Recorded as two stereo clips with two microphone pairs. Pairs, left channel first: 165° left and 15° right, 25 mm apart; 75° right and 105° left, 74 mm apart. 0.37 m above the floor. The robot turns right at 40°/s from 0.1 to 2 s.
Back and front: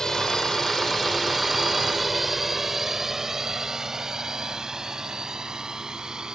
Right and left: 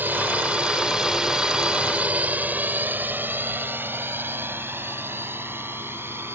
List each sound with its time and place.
0.0 s a drone: 125° left; by 6.3 s 45° left